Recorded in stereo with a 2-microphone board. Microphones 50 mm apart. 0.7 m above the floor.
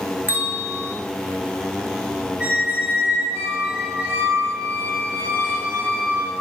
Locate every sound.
0.3 s a bell: 35° right (ahead or behind), 0.9 m
2.4 s a squeak: 25° right (ahead or behind), 2.5 m